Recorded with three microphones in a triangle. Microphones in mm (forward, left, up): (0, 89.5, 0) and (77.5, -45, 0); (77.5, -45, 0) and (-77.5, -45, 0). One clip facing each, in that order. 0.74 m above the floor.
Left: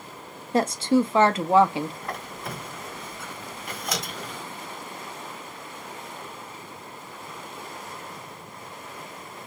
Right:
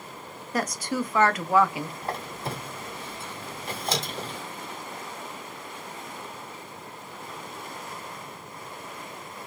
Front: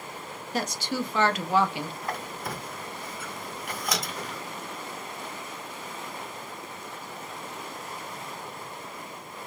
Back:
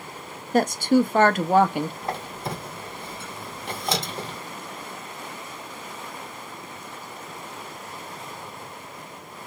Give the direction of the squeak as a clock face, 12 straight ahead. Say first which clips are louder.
Right 2 dB, back 3 dB; 4 o'clock.